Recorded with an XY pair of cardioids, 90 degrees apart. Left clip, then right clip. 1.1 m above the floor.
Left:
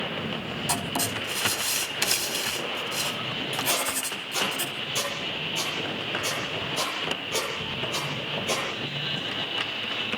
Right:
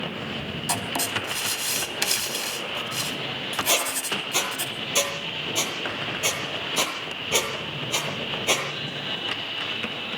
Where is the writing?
10° right, 4 m.